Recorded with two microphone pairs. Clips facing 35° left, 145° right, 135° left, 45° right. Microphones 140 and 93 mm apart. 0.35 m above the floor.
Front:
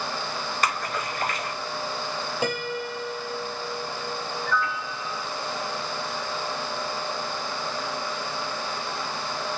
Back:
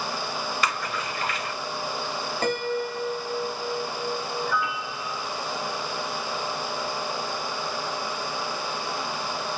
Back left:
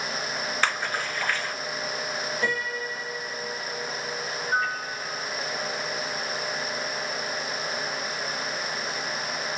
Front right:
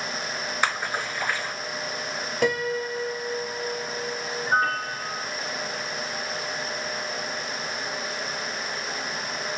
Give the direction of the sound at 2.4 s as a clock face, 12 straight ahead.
2 o'clock.